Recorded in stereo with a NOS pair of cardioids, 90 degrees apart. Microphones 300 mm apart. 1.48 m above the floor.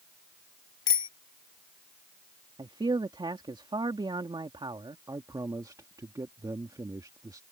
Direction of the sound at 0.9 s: 40° left.